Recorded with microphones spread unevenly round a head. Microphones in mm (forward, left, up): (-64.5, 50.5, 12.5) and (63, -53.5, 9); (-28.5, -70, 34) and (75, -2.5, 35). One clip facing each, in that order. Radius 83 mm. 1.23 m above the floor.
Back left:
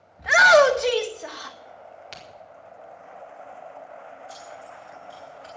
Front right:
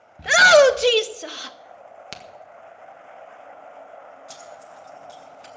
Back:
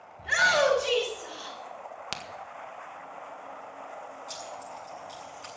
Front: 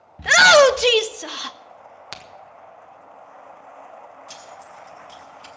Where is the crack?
70° right, 1.6 m.